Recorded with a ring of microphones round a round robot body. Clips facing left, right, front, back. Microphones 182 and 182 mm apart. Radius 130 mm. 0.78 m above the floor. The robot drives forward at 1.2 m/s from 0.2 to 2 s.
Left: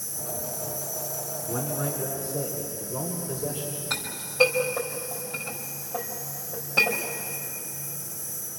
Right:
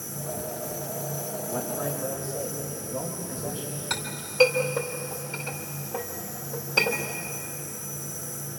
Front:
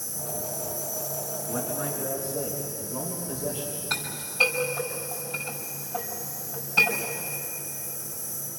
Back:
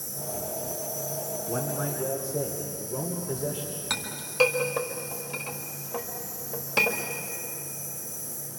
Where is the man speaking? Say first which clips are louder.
Left 1 dB, even; 145° left, 2.5 m; by 3.8 s 155° left, 3 m.